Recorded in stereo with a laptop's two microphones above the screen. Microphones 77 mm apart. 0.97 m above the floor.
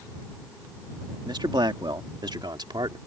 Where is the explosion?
No explosion in this recording.